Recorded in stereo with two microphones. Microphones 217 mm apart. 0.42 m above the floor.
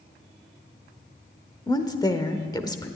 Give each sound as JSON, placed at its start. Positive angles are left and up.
{"t": 1.7, "sound": "a woman speaking", "side_deg": 20, "distance_m": 1.0}